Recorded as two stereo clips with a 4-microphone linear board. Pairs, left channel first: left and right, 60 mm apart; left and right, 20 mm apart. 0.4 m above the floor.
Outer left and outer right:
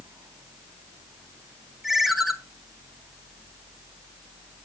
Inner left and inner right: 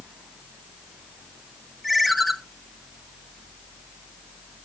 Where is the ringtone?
5° right (ahead or behind), 0.9 m.